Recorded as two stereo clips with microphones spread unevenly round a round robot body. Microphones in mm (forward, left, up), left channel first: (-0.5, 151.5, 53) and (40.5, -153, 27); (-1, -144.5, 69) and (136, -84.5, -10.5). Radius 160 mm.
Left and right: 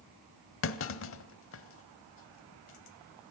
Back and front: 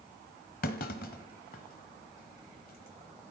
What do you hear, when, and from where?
0.6 s a clunk: 145° left, 1.1 m